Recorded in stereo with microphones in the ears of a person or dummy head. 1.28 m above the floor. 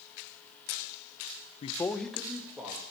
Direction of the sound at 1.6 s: 35° left (ahead or behind).